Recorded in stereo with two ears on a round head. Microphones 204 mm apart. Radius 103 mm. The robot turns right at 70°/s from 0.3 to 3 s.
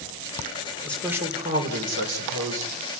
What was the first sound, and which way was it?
A man speaking, 170° left.